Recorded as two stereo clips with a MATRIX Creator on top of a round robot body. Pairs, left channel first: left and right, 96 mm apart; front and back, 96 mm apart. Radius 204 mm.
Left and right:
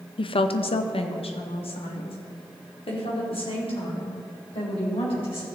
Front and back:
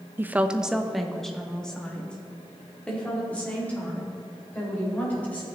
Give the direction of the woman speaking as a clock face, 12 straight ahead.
8 o'clock.